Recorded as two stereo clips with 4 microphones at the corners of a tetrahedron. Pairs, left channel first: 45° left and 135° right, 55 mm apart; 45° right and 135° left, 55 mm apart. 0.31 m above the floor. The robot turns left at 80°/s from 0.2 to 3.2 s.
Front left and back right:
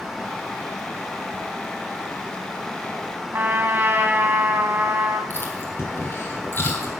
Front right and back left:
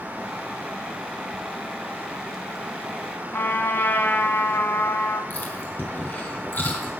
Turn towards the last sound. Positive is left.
turn(degrees=0)